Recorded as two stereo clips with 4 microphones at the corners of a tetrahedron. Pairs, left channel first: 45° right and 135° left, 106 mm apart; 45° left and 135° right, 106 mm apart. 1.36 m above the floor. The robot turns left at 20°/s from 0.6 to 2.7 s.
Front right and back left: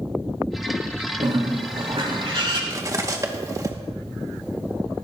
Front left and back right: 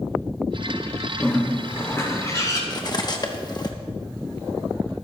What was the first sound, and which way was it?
A bird, 120° left.